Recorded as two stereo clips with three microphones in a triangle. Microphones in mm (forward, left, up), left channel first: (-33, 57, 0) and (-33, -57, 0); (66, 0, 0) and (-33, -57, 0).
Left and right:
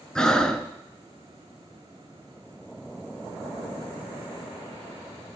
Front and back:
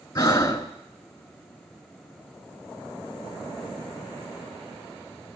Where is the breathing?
10° left, 0.6 m.